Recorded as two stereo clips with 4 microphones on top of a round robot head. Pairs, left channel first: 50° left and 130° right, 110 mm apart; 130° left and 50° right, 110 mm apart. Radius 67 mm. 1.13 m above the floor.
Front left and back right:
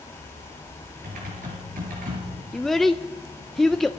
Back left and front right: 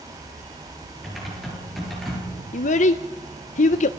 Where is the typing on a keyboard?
140° right, 8 m.